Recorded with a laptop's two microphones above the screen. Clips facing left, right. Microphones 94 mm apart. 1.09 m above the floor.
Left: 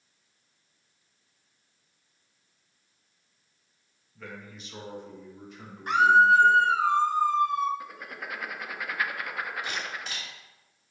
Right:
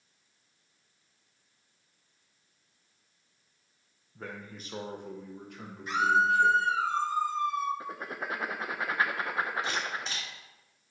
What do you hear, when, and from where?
4.2 s a man speaking: 35° right (ahead or behind), 0.8 m; by 6.6 s 65° right (ahead or behind), 2.0 m
5.9 s a scream: 60° left (ahead or behind), 0.6 m
7.8 s writing: 30° right (ahead or behind), 0.5 m
9.6 s a camera shutter: 30° right (ahead or behind), 3 m